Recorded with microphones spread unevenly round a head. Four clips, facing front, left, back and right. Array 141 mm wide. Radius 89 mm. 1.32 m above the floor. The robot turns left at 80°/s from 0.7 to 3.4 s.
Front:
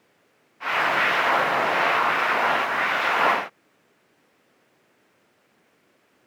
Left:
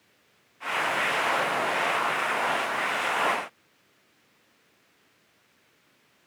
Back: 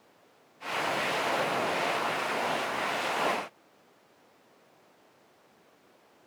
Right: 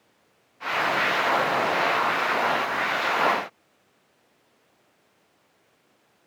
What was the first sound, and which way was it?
Only background noise.